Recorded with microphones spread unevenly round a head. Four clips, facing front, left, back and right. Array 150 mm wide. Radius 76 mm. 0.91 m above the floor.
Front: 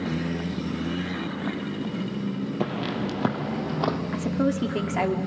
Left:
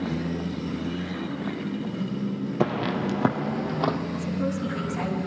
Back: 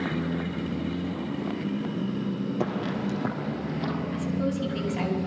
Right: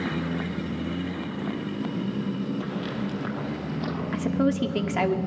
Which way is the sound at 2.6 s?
90° left.